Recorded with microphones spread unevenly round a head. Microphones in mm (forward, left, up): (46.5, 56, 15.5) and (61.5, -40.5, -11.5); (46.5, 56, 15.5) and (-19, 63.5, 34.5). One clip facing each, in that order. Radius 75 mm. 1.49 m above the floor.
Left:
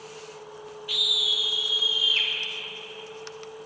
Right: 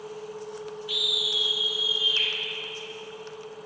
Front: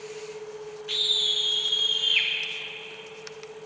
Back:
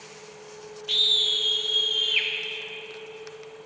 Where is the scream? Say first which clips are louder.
Right 2 dB, back 4 dB; 65° left, 1.4 m; by 2.3 s 85° left, 2.5 m.